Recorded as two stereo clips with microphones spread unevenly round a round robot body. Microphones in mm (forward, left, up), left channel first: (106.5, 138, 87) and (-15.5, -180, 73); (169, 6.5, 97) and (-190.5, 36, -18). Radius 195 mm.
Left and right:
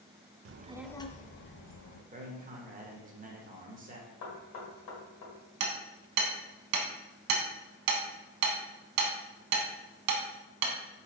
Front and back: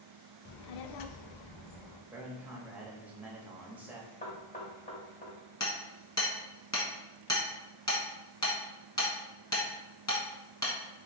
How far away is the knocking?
About 1.5 m.